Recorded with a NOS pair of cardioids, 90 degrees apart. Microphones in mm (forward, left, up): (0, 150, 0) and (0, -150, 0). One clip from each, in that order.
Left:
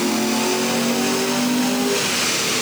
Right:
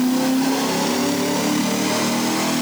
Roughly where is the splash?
No splash in this recording.